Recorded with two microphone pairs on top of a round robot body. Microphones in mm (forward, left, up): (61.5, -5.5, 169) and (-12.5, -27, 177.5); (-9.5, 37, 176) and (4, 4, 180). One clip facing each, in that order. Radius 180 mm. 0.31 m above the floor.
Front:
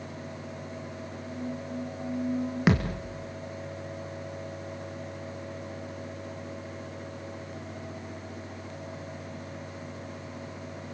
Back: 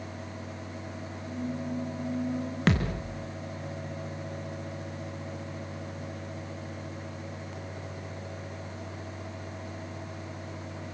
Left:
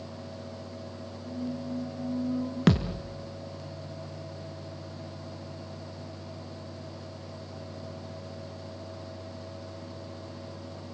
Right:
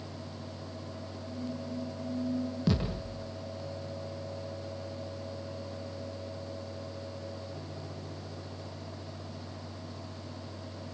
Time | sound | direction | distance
1.2 | a squeak | 110° left | 6 m
2.7 | a thud | 95° left | 3.5 m